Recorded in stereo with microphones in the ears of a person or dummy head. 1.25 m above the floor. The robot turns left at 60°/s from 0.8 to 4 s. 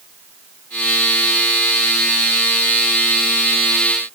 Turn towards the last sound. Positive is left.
No sound to turn to.